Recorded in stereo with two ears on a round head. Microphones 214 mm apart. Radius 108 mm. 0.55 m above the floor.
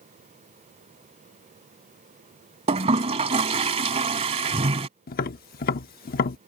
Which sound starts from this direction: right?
A toilet flushing, at 2.7 s.